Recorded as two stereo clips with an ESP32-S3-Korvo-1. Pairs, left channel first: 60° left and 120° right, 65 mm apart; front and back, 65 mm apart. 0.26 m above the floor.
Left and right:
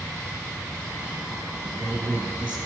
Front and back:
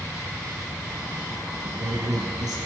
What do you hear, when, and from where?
1.6 s a woman speaking: 160° left, 3 m